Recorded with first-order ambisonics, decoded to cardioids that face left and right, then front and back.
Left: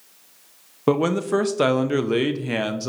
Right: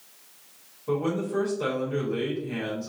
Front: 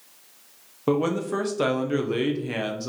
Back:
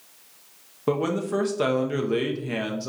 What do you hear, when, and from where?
0.9 s a man speaking: 85° left, 0.5 m